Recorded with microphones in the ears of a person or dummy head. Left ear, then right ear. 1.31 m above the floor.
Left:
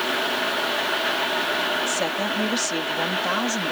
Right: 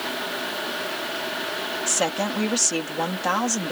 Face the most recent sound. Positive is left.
turn(degrees=-25)  # may be behind; listen again after turning